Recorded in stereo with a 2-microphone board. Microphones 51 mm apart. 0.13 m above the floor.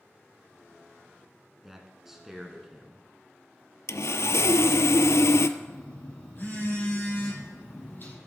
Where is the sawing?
75° left (ahead or behind), 0.5 m.